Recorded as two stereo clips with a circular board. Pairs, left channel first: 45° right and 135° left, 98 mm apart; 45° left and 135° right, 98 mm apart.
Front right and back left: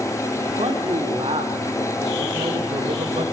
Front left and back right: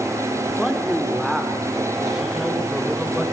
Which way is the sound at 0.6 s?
135° left.